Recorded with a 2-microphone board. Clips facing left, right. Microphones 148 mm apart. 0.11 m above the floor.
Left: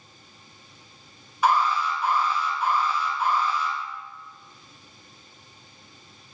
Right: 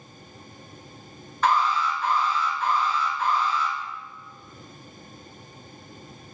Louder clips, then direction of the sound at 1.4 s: Even; 10° left (ahead or behind).